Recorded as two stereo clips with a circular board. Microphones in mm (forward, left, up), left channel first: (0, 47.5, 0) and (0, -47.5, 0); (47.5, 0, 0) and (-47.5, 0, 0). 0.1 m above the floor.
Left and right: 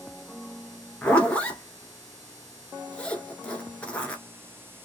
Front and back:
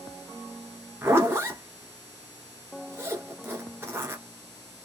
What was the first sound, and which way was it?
A zipper, 150° left.